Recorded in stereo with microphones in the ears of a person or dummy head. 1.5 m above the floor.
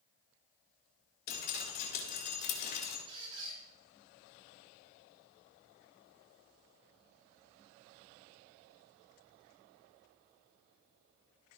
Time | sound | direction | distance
1.3 | dripping | 50° left (ahead or behind) | 4.5 m
3.1 | a squeak | 30° right (ahead or behind) | 5.5 m